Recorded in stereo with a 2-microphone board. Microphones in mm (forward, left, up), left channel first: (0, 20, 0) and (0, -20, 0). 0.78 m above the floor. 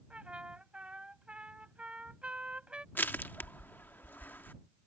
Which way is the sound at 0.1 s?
30° right (ahead or behind).